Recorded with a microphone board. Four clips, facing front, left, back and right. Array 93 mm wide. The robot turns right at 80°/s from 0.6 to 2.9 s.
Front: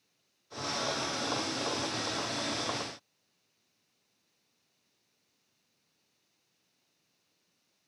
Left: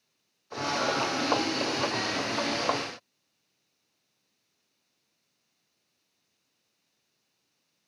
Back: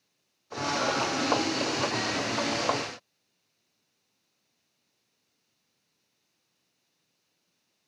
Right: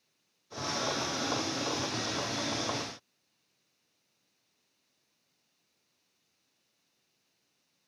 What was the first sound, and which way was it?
Only background noise.